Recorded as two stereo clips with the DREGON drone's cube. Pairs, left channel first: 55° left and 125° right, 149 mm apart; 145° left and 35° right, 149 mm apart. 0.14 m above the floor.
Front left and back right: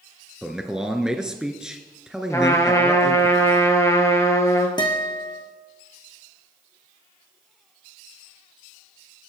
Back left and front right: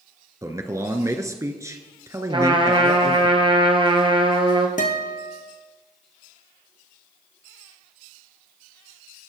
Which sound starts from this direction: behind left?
A guitar, at 4.8 s.